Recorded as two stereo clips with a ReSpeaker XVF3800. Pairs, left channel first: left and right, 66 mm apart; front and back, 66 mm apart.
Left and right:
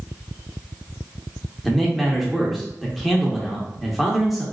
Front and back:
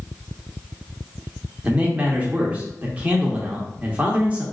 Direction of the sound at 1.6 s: Straight behind.